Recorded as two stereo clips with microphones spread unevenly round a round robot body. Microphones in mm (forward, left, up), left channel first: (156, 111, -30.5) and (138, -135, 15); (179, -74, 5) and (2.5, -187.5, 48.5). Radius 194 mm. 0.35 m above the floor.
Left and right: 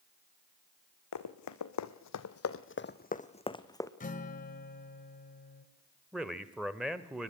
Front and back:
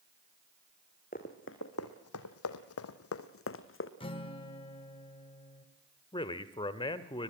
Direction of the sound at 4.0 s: 70° left.